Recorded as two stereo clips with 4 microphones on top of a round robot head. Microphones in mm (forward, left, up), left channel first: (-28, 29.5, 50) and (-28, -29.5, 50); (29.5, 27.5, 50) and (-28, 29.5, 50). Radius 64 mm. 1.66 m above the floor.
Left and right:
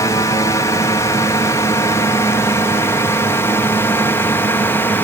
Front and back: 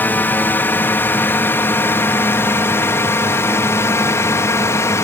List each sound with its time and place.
0.0 s a drone: 55° left; by 5.0 s 30° left